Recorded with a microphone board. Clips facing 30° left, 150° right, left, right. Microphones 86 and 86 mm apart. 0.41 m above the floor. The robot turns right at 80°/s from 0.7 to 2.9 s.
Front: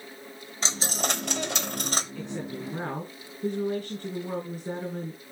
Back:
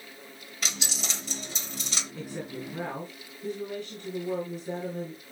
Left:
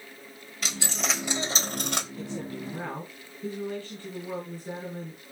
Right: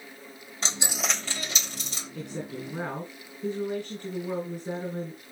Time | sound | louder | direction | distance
0.6 | a dropped coin | front 7 dB, even | 30° right | 0.7 m
2.1 | a woman speaking | front 2 dB, even | 75° right | 4.5 m